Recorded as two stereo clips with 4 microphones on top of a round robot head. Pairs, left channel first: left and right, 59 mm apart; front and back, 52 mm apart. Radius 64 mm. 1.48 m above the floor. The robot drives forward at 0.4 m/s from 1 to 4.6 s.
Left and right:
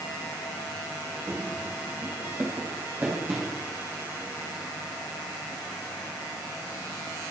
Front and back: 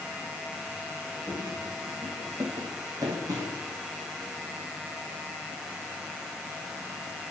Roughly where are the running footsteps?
Behind right.